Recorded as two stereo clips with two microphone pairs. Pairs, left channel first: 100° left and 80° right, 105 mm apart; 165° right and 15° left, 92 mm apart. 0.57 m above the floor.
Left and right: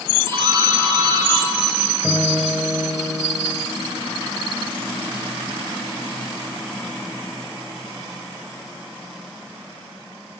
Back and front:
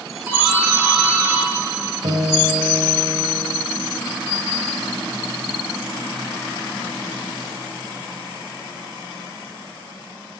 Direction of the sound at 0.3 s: 55° right.